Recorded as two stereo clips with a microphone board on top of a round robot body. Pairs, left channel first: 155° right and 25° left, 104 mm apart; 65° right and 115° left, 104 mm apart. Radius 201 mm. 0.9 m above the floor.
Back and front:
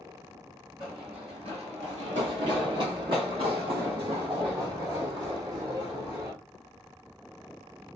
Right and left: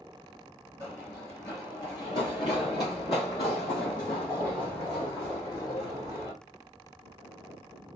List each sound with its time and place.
0.8 s running footsteps: 5° left, 1.0 m; by 6.3 s 25° right, 3.5 m